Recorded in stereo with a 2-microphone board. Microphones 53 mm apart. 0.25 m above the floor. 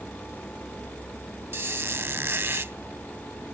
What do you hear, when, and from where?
1.5 s a squeak: 50° right (ahead or behind)